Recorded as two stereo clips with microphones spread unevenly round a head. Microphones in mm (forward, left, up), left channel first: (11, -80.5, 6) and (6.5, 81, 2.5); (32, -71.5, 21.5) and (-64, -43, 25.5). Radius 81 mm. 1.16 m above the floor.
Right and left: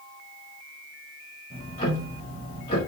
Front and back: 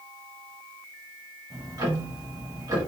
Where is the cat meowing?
No cat meowing in this recording.